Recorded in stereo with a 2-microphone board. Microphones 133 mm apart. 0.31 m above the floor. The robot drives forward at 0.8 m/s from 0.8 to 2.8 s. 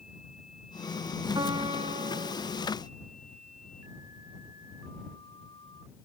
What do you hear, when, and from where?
1.4 s a piano: 35° right (ahead or behind), 0.9 m; by 2.4 s 75° right (ahead or behind), 0.5 m